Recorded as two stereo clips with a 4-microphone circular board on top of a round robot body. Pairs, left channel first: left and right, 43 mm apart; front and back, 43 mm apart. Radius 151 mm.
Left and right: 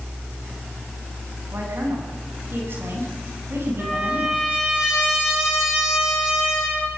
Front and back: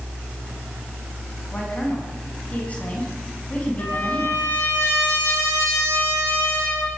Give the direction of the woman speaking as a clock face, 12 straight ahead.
2 o'clock.